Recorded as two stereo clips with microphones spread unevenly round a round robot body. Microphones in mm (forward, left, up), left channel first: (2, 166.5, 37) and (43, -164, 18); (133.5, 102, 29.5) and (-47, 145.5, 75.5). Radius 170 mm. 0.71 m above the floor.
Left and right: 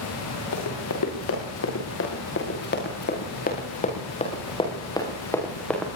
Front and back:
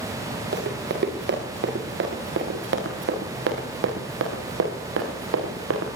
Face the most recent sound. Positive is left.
turn(degrees=-175)